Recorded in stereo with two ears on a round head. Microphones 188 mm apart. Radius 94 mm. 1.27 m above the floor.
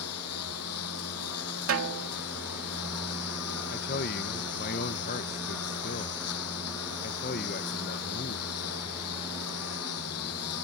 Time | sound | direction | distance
0.0 | a lawn mower | 85° left | ?
1.7 | a snare drum | 75° right (ahead or behind) | ?
3.7 | a man speaking | 45° left (ahead or behind) | ?